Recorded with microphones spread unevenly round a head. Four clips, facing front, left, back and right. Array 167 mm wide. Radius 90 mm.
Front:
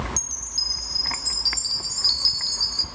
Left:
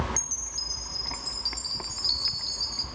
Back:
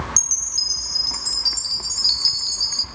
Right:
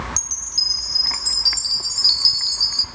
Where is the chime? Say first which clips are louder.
Right 3 dB, back 1 dB; 110° right, 0.8 m.